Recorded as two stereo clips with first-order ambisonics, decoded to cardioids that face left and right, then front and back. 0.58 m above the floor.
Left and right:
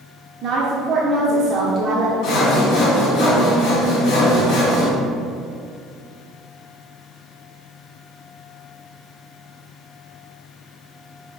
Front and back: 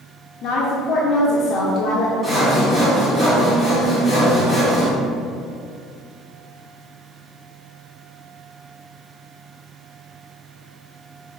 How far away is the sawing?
About 1.6 m.